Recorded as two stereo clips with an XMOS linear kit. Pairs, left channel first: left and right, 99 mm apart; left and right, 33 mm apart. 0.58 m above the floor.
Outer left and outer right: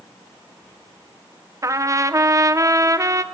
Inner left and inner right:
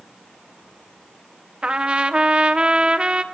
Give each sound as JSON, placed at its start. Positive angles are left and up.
{"t": 1.6, "sound": "a trumpet", "side_deg": -30, "distance_m": 0.9}